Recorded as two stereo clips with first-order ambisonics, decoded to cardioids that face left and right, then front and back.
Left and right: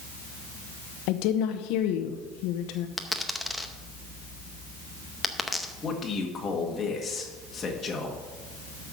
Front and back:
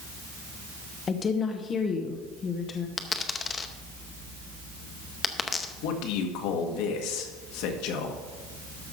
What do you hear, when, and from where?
1.1 s a woman speaking: 70° left, 0.8 m
3.0 s a dropped coin: 10° left, 0.7 m
5.8 s a man speaking: 20° left, 1.7 m